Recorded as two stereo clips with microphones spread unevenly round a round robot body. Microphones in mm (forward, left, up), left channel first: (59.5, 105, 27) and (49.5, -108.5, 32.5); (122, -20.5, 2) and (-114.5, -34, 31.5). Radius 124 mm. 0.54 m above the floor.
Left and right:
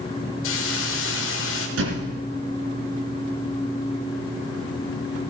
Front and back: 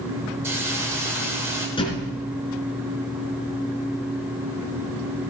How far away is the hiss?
About 1.8 m.